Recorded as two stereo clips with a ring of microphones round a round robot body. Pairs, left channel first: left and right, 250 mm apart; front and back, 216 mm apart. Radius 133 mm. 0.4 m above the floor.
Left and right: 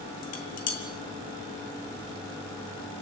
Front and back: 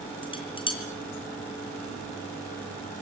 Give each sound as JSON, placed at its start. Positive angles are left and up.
{"t": 0.2, "sound": "dishes clattering", "azimuth_deg": 65, "distance_m": 4.0}